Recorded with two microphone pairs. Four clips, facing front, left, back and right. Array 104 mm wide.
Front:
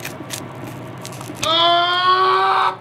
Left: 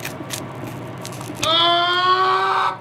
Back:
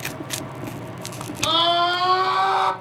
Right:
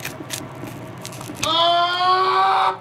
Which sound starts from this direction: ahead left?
A scream, at 1.4 s.